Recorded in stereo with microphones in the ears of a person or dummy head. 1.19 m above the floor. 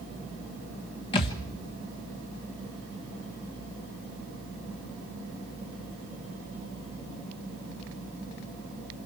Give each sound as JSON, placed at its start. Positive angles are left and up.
{"t": 1.1, "sound": "a thud", "side_deg": 30, "distance_m": 1.2}